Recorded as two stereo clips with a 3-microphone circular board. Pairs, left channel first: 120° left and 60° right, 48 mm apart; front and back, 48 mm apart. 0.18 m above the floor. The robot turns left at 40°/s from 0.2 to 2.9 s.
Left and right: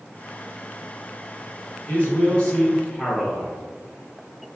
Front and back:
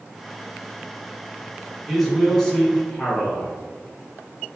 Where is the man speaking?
85° left, 1.6 m; by 3.5 s 45° left, 1.6 m.